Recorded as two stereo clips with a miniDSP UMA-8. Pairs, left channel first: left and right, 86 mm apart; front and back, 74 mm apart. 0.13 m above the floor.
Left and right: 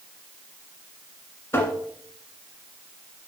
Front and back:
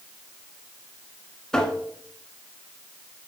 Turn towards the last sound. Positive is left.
turn(degrees=75)